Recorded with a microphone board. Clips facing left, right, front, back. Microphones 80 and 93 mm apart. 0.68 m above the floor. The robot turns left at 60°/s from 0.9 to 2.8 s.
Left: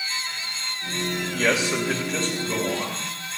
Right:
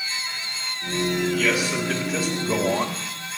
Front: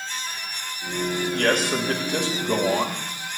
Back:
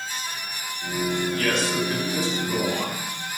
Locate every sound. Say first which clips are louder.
1.3 s a man speaking: even, front 2 dB; 45° left, 2.5 m; by 3.0 s 45° right, 2.5 m